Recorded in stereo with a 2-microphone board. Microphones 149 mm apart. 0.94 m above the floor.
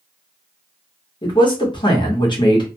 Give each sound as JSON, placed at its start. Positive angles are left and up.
{"t": 1.2, "sound": "a man speaking", "side_deg": 30, "distance_m": 1.1}